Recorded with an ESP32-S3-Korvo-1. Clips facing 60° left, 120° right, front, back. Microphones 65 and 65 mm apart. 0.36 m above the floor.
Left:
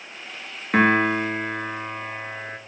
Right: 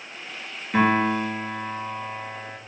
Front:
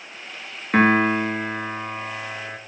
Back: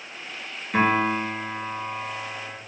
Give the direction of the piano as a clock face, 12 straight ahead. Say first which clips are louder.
Left 2 dB, front 4 dB; 11 o'clock.